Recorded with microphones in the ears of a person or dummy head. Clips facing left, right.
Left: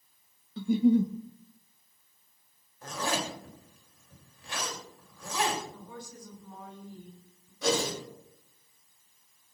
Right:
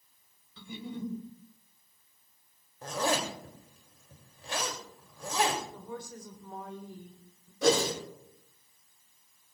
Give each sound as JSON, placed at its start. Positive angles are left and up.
{"t": 0.6, "sound": "a giggle", "side_deg": 40, "distance_m": 1.1}
{"t": 2.8, "sound": "a zipper", "side_deg": -35, "distance_m": 3.0}
{"t": 5.7, "sound": "a woman speaking", "side_deg": -45, "distance_m": 3.5}
{"t": 7.6, "sound": "a whoosh", "side_deg": -60, "distance_m": 5.5}